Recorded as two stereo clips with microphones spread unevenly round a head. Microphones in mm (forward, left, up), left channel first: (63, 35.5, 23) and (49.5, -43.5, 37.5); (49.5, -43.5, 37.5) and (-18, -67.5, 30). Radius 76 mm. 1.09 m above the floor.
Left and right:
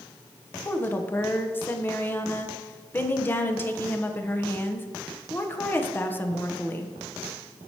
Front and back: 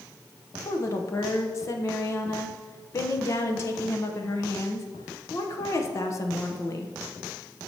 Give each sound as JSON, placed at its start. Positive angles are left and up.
{"t": 0.7, "sound": "a woman speaking", "azimuth_deg": 45, "distance_m": 0.9}